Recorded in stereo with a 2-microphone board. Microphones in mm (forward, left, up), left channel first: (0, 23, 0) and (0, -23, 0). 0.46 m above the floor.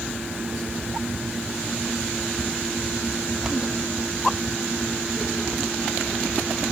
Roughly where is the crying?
I don't hear crying.